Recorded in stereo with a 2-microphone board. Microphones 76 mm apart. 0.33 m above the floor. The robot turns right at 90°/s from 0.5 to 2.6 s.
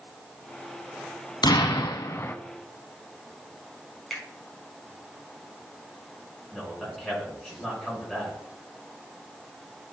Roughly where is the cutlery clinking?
I don't hear cutlery clinking.